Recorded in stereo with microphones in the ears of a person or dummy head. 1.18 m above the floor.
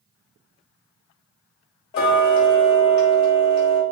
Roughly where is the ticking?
Left.